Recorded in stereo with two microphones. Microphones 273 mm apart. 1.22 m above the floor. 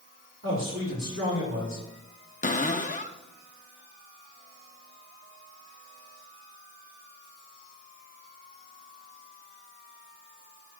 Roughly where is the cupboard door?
Left.